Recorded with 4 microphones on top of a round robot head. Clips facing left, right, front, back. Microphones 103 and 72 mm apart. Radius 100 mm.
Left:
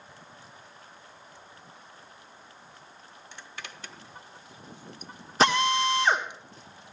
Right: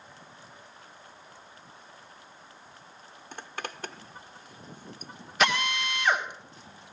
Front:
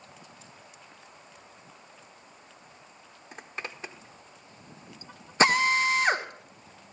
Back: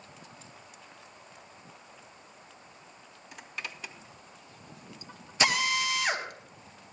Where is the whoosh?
I don't hear a whoosh.